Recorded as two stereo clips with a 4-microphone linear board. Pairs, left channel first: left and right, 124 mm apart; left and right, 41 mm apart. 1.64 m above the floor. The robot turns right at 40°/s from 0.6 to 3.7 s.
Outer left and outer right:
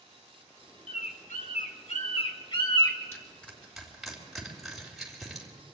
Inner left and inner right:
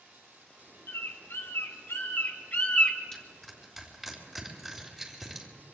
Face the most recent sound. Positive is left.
turn(degrees=0)  # may be behind; listen again after turning